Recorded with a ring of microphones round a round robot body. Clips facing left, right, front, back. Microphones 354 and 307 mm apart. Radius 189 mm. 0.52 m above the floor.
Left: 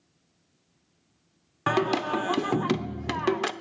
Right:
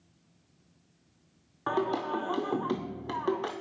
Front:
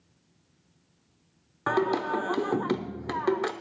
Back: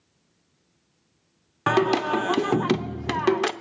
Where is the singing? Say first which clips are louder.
Left 4 dB, back 5 dB; 130° left, 0.6 m.